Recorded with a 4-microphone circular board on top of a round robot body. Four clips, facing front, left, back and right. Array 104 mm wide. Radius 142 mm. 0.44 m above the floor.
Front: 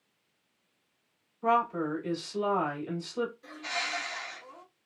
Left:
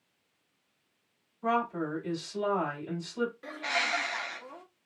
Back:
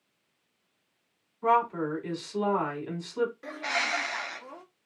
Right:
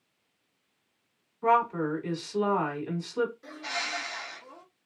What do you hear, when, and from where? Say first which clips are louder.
1.4 s a woman speaking: right 5 dB, back 2 dB; 125° right, 2.5 m
3.4 s a bird: left 3 dB, back 5 dB; 155° left, 0.8 m